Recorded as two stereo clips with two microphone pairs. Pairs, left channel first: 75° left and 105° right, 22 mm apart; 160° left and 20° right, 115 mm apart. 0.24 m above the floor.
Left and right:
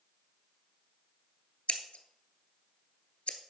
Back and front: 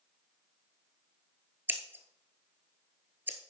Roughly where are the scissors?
Ahead left.